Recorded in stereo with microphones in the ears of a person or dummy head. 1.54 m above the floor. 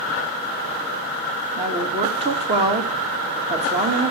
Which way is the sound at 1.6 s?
30° right (ahead or behind).